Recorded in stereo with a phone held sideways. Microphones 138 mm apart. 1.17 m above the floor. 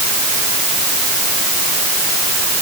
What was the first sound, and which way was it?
Only background noise.